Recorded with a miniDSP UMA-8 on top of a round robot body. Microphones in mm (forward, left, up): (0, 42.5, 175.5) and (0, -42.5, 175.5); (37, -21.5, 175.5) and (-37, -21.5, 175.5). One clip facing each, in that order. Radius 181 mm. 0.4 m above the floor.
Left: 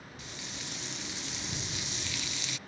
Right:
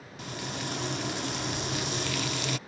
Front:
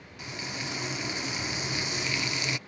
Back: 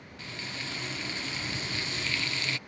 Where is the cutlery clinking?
No cutlery clinking in this recording.